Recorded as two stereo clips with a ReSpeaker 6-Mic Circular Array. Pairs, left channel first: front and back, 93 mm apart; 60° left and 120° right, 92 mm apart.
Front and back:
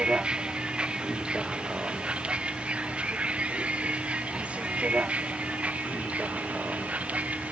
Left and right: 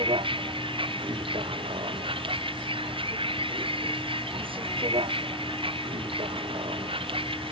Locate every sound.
0.0 s a vehicle: 100° right; by 7.5 s 105° right